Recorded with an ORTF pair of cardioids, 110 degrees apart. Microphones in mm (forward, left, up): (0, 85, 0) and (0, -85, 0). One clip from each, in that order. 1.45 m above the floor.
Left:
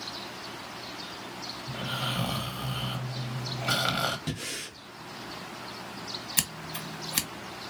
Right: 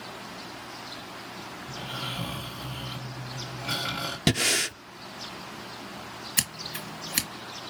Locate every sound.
1.7 s snoring: 40° left, 1.4 m
4.3 s breathing: 70° right, 0.5 m
6.4 s scissors: straight ahead, 1.6 m